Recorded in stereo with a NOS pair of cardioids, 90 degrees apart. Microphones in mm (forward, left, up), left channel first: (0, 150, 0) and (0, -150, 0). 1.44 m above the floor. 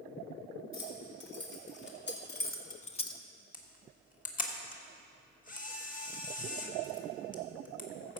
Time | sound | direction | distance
0.7 | keys jangling | 40° left | 3 m
3.5 | a camera shutter | 25° left | 1.7 m